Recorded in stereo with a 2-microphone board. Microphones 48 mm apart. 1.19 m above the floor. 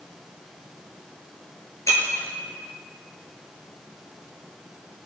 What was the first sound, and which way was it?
Breaking glass, 75° left (ahead or behind).